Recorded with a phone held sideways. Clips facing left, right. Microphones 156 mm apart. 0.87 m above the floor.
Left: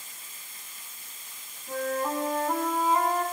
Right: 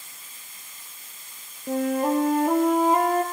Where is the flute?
65° right (ahead or behind), 4 m.